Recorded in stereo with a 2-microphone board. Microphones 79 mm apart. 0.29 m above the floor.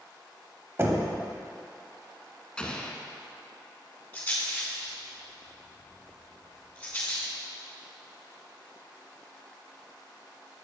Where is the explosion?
15° left (ahead or behind), 0.9 m.